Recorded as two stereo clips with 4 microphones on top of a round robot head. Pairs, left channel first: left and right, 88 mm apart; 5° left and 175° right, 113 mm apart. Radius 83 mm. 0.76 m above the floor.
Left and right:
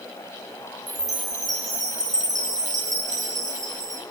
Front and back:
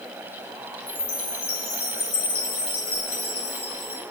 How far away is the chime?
About 7.5 m.